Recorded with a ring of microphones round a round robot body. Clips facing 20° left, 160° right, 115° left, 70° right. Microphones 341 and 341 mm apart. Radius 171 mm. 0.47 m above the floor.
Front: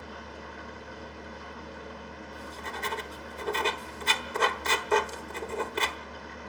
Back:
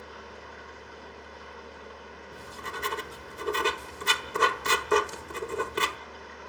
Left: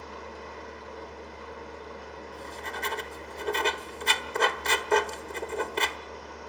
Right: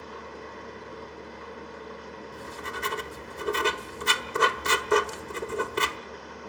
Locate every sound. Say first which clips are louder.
0.0 s an engine running: front 2 dB, right 1 dB; straight ahead, 6.5 m
2.3 s writing: back 1 dB, right 1 dB; 115° right, 0.7 m